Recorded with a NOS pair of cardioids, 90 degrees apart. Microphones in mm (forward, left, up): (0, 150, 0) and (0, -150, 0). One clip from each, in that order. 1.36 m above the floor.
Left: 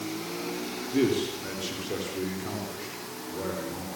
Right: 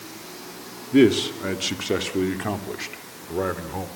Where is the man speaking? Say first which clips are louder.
Right 9 dB; 65° right, 3 m; by 3.9 s 80° right, 4.5 m.